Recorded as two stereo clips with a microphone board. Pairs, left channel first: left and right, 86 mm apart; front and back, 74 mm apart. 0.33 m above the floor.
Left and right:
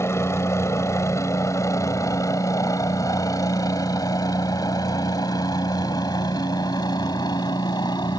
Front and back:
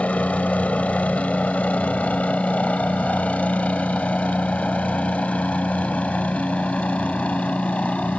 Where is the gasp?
No gasp in this recording.